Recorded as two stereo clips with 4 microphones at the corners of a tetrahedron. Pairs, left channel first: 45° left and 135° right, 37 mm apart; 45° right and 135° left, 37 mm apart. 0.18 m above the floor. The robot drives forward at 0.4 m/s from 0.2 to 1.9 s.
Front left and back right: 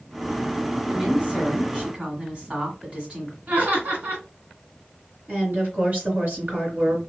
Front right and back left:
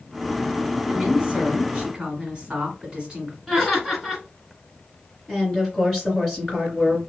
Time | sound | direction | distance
0.9 | a woman speaking | 165° right | 1.4 m
3.5 | laughter | 130° right | 1.5 m
5.3 | a woman speaking | 125° right | 2.5 m